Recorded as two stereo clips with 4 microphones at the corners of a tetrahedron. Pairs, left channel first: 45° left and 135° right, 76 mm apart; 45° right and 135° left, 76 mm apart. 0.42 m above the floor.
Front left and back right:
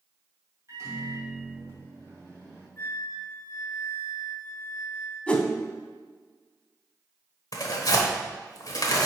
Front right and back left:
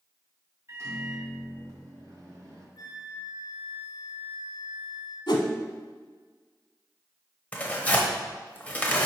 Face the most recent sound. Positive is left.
turn(degrees=25)